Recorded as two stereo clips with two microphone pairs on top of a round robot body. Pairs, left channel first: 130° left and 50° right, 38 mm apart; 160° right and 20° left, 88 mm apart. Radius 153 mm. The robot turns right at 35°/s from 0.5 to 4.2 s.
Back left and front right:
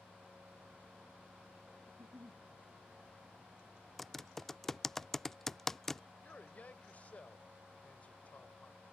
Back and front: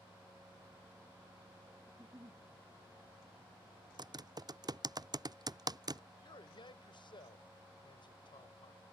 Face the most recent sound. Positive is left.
turn(degrees=175)